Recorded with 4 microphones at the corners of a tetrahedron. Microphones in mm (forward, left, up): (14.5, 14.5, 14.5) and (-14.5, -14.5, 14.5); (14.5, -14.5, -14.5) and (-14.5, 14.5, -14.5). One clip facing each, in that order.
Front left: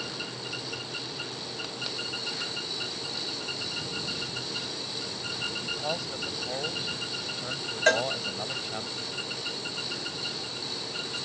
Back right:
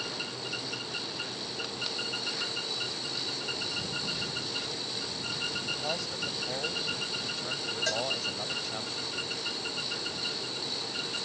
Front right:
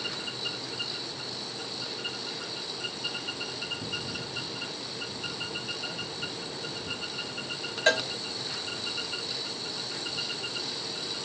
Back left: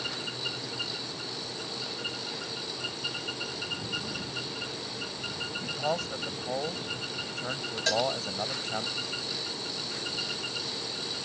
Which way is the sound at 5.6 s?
125° left.